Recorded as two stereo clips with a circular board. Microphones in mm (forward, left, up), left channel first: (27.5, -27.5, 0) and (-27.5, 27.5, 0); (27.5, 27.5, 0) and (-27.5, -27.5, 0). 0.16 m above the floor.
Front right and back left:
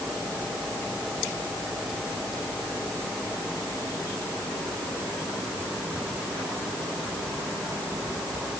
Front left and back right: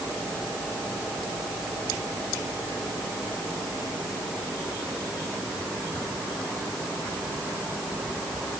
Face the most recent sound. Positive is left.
No sound to turn to.